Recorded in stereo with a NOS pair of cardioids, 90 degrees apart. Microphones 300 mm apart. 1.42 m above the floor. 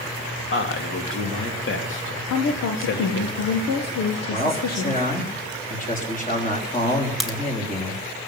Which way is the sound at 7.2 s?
Straight ahead.